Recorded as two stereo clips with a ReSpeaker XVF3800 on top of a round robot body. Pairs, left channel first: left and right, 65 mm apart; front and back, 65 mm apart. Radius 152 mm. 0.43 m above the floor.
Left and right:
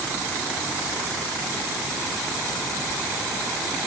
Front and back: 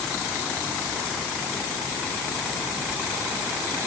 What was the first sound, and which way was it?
Only background noise.